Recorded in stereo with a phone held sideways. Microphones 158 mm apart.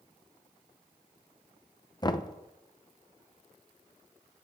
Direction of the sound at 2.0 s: 30° left (ahead or behind).